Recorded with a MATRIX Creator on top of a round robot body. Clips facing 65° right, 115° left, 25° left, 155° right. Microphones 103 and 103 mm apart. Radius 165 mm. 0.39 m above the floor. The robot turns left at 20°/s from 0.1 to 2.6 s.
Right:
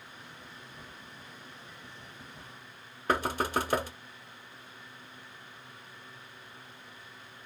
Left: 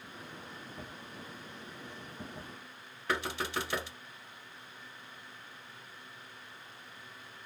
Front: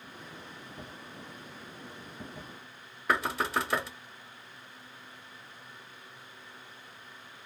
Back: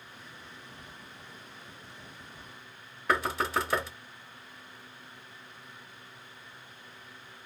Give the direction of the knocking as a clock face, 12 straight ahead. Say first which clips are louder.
Right 6 dB, back 1 dB; 2 o'clock.